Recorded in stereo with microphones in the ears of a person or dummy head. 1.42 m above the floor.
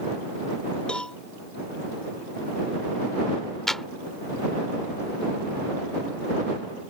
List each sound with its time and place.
0.9 s a cowbell: 5° left (ahead or behind)
3.7 s a clap: centre (ahead or behind)